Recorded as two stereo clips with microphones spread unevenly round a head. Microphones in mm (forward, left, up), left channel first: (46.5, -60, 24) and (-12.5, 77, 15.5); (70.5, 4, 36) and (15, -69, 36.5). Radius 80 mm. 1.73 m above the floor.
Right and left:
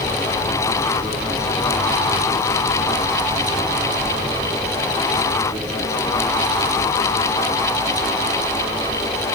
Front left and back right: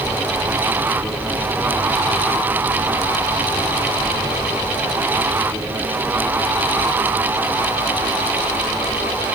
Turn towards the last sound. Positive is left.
No sound to turn to.